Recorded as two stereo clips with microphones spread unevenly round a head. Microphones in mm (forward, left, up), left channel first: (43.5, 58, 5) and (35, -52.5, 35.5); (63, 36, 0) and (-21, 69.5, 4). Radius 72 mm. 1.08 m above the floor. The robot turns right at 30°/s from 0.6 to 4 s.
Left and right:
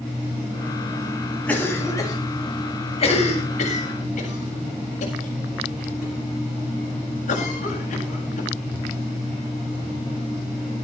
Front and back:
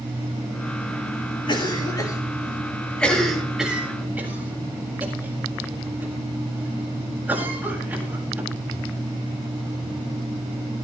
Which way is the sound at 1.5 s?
10° left.